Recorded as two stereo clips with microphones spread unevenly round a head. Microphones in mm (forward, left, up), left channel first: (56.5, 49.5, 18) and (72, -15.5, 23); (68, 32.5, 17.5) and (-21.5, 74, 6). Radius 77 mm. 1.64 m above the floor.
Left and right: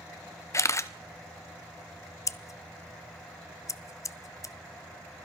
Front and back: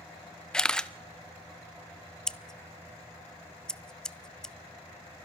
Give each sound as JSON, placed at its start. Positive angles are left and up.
{"t": 0.5, "sound": "a camera shutter", "azimuth_deg": 55, "distance_m": 0.9}
{"t": 2.3, "sound": "scissors", "azimuth_deg": 60, "distance_m": 0.7}